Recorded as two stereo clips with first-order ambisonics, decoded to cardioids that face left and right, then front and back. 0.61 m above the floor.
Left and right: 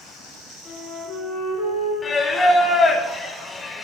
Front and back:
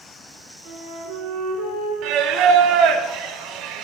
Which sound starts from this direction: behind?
Singing, at 2.0 s.